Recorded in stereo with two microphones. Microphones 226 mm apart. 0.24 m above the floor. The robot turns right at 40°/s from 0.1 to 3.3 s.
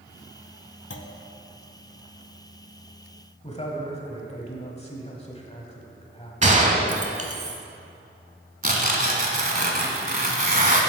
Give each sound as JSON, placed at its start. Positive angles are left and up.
{"t": 0.9, "sound": "a clunk", "side_deg": 55, "distance_m": 0.6}
{"t": 3.4, "sound": "a man speaking", "side_deg": 30, "distance_m": 1.2}
{"t": 6.4, "sound": "a gunshot", "side_deg": -30, "distance_m": 0.9}
{"t": 8.6, "sound": "tearing paper", "side_deg": -40, "distance_m": 1.1}